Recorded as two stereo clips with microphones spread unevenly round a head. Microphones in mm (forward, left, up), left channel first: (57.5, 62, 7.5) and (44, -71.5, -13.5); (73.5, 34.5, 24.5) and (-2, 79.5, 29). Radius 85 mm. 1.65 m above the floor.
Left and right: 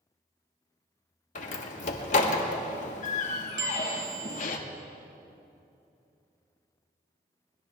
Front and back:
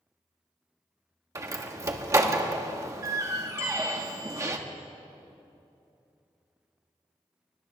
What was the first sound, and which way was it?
A door slam, 100° left.